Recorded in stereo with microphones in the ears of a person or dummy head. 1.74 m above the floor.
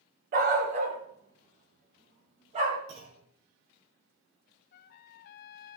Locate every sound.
0.3 s a dog barking: 50° right (ahead or behind), 2 m; by 2.8 s 40° right (ahead or behind), 4 m
2.9 s a clunk: 65° right (ahead or behind), 4 m
4.7 s a trumpet: 50° left (ahead or behind), 0.7 m